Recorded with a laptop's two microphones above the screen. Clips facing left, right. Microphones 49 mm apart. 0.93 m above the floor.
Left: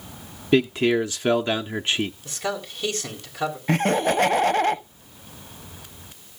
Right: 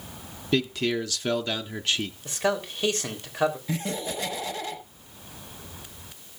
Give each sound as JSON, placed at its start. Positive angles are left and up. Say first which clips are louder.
{"t": 0.5, "sound": "a man speaking", "louder": "left 6 dB", "side_deg": 25, "distance_m": 0.6}
{"t": 2.2, "sound": "a man speaking", "louder": "right 3 dB", "side_deg": -30, "distance_m": 3.5}
{"t": 3.7, "sound": "laughter", "louder": "left 10 dB", "side_deg": 55, "distance_m": 0.7}